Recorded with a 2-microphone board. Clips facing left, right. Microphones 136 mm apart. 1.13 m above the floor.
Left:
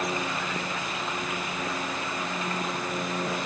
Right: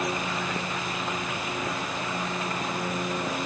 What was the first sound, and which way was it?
Only background noise.